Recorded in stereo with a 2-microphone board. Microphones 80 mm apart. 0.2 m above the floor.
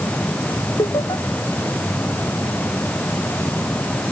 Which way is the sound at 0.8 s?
65° left (ahead or behind).